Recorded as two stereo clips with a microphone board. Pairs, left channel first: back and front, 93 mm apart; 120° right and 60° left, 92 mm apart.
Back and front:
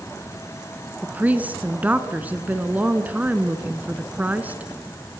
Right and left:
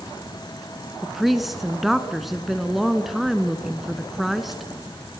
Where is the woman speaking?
25° right, 1.5 m.